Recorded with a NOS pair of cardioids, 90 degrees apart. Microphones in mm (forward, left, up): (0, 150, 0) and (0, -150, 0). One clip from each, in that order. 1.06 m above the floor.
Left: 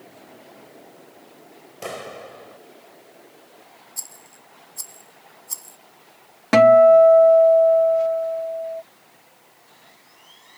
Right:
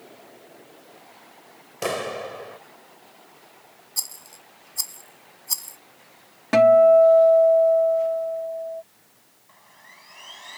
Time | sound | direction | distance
1.8 | a clap | 40° right | ?
4.0 | a rattle | 40° right | ?
6.5 | a guitar | 30° left | ?
9.5 | sawing | 65° right | ?